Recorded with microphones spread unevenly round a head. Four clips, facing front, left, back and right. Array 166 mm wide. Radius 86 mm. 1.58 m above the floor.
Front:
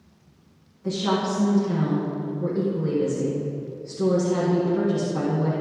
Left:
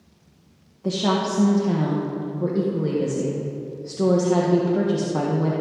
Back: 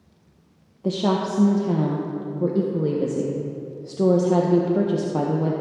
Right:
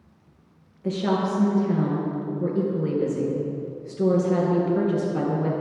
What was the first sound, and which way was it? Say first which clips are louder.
A woman speaking: left 1 dB, back 2 dB; 170° left.